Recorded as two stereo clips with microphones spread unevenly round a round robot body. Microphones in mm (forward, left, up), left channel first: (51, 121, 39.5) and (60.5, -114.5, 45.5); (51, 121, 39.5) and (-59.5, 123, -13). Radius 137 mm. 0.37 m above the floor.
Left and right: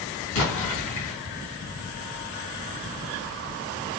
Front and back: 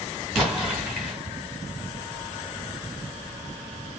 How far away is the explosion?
About 1.9 m.